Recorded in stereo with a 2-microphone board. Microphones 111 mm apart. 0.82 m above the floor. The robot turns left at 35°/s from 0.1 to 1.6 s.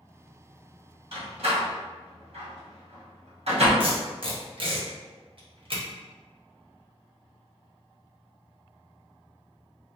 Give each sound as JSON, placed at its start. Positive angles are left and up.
{"t": 1.1, "sound": "a door slam", "side_deg": -55, "distance_m": 1.1}
{"t": 3.8, "sound": "tape being pulled", "side_deg": -50, "distance_m": 0.9}